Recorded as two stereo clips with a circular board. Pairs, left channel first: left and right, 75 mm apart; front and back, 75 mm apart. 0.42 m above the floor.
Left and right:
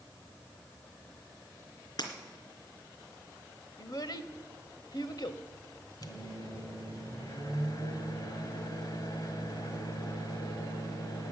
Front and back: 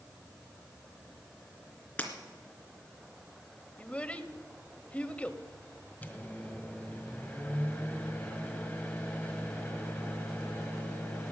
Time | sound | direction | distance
2.0 | breaking glass | 70° left | 2 m
3.8 | a child speaking | 70° left | 0.9 m
6.0 | a microwave | 70° left | 1.6 m